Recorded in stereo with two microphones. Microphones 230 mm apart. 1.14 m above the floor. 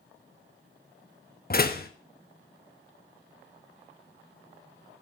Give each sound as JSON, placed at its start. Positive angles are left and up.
{"t": 1.5, "sound": "a door slam", "side_deg": 45, "distance_m": 0.9}